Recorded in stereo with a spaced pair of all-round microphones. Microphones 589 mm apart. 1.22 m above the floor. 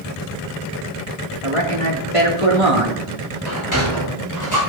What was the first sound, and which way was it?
A man speaking, 65° right (ahead or behind).